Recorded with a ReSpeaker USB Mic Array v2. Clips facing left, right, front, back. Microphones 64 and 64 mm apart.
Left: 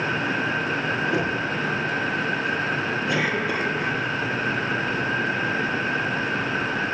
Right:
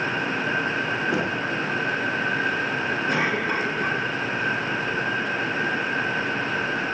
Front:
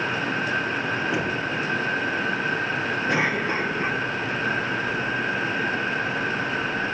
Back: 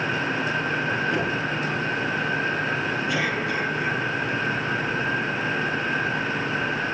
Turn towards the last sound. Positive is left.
turn(degrees=-45)